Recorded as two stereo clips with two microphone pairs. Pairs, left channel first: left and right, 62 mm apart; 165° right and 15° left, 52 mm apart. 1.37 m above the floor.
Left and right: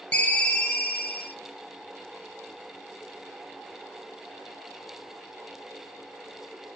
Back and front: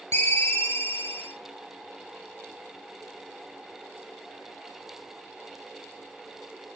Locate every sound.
0.1 s a ringtone: 160° left, 0.6 m